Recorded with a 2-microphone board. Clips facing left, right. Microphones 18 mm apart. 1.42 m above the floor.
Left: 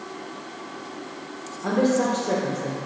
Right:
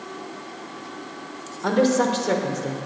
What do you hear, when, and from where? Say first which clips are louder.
1.6 s a woman speaking: right 2 dB; 45° right (ahead or behind), 0.8 m